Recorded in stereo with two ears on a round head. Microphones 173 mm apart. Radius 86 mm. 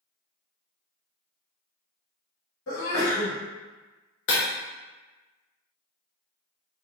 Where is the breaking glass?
65° left (ahead or behind), 0.9 m.